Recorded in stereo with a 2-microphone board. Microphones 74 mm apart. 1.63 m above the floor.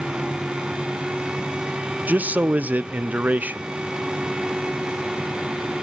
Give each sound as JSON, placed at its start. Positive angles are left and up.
{"t": 2.1, "sound": "a man speaking", "side_deg": -25, "distance_m": 0.6}